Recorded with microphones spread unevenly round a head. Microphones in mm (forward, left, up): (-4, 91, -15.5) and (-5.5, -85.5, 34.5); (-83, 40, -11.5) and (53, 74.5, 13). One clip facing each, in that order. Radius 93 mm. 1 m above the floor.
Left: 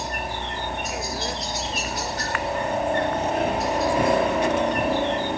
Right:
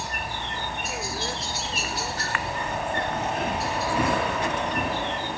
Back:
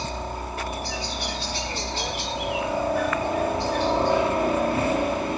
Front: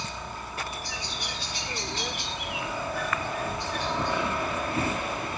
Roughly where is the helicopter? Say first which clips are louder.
Left 4 dB, back 7 dB; behind left.